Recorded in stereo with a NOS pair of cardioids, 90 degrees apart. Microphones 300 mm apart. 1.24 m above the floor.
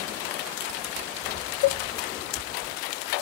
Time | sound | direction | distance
1.6 | a cowbell | 60° left | 0.7 m